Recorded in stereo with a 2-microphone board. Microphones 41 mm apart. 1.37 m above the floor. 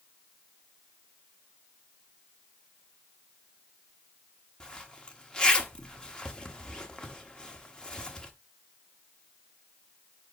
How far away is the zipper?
About 1.2 m.